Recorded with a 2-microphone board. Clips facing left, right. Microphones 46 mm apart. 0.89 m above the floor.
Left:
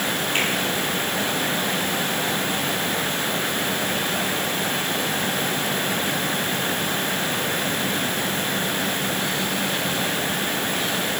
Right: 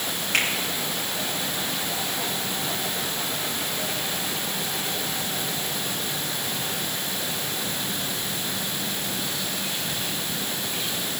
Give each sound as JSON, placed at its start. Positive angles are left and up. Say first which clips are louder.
{"t": 0.3, "sound": "a finger snap", "louder": "right 1 dB", "side_deg": -70, "distance_m": 7.5}